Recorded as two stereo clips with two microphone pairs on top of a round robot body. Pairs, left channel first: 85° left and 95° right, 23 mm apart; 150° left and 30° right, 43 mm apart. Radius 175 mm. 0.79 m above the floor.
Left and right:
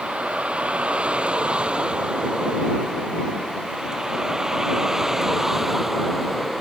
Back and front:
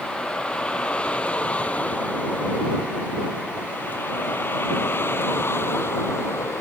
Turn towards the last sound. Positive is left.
turn(degrees=175)